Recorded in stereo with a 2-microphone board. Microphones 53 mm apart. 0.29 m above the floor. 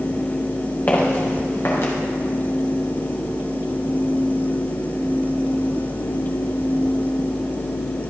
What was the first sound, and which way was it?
Footsteps, 35° left (ahead or behind).